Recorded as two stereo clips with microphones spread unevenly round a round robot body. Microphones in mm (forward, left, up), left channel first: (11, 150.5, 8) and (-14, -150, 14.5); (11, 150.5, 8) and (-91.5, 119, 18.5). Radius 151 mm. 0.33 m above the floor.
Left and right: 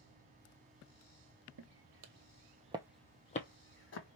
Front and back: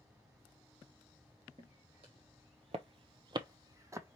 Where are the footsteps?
105° right, 0.9 m; by 4.2 s 130° left, 1.1 m.